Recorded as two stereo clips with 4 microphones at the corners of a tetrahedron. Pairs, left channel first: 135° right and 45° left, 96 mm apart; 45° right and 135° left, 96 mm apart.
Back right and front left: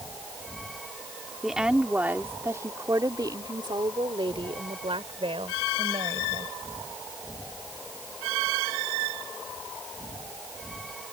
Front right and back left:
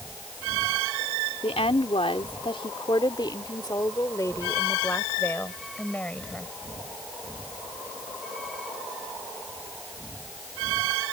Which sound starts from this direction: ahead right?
A woman speaking, at 1.4 s.